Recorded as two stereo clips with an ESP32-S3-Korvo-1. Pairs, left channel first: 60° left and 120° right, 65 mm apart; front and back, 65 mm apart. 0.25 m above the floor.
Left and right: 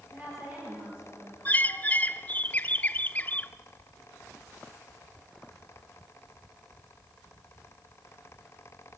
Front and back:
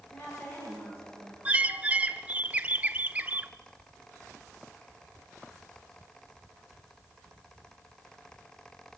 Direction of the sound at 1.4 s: 115° left.